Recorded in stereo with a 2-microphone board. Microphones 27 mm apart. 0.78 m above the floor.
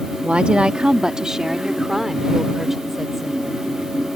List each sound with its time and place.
0.2 s a woman speaking: 55° right (ahead or behind); by 3.6 s 5° right (ahead or behind)